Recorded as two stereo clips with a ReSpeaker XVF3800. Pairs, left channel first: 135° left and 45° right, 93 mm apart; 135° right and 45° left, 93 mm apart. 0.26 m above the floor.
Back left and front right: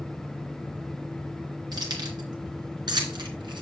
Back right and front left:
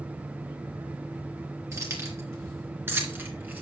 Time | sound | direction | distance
1.7 | keys jangling | 10° right | 3 m